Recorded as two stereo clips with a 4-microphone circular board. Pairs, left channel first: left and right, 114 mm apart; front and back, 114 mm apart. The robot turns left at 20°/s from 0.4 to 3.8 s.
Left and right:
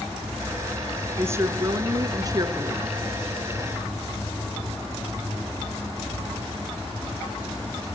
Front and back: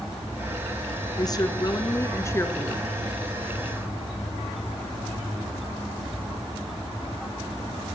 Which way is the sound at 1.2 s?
30° right.